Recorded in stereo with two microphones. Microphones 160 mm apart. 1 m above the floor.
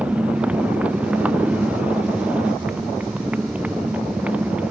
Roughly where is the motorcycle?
Centre.